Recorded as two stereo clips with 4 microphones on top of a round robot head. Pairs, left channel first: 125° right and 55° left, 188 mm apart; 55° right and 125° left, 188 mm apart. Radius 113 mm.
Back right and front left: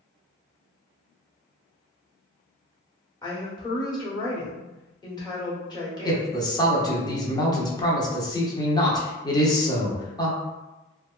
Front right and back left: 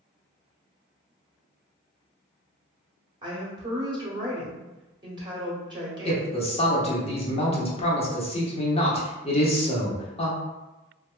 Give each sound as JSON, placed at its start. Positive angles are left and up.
{"t": 3.2, "sound": "a woman speaking", "azimuth_deg": 180, "distance_m": 1.1}
{"t": 6.0, "sound": "a man speaking", "azimuth_deg": -75, "distance_m": 0.8}